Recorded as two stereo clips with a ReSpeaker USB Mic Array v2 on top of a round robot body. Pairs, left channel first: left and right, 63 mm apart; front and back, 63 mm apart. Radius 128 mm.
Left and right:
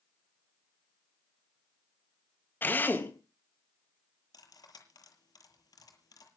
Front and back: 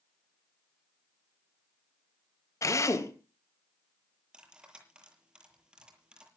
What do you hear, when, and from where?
2.6 s a drill: 35° left, 3.5 m
4.3 s cutlery clinking: 105° left, 8 m